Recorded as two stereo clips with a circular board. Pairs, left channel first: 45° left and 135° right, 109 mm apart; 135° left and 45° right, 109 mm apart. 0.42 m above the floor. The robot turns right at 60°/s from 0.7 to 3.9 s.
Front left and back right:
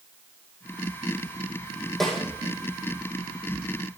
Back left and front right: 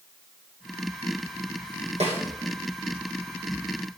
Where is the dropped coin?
No dropped coin in this recording.